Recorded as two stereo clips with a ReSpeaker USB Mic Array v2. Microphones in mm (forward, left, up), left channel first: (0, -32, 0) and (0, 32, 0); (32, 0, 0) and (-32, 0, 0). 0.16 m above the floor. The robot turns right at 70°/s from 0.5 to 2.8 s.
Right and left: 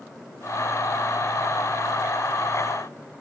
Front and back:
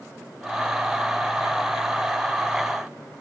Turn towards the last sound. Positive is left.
No sound to turn to.